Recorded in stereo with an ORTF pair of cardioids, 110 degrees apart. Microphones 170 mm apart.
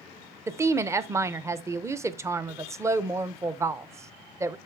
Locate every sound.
0.5 s a woman speaking: 15° right, 0.7 m